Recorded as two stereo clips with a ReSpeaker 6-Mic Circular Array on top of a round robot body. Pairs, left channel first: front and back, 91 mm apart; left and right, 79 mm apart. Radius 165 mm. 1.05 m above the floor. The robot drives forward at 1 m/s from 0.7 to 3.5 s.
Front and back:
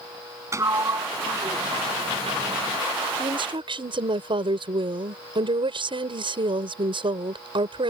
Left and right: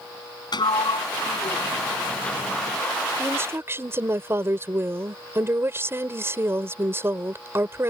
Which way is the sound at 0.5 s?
120° left.